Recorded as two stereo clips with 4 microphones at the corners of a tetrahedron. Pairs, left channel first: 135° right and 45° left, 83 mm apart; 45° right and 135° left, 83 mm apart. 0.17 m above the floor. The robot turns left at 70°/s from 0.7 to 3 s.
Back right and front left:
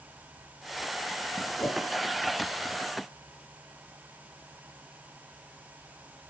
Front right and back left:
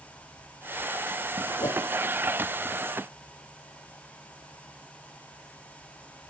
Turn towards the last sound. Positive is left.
turn(degrees=-165)